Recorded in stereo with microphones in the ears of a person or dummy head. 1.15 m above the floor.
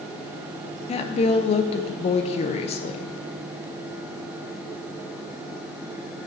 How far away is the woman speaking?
About 0.6 m.